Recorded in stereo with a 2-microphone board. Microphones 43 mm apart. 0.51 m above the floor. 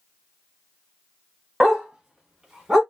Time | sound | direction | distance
1.6 | a dog barking | 10° right (ahead or behind) | 1.1 m